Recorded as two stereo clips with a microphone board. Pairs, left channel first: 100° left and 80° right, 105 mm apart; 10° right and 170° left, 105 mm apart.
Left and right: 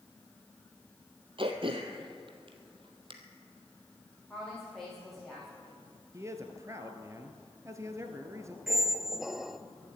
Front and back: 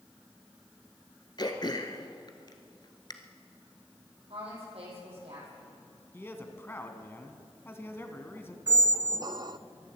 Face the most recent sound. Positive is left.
turn(degrees=-165)